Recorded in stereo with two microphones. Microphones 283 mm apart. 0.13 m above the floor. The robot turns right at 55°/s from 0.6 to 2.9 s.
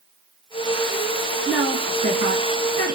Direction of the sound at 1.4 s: 10° right (ahead or behind).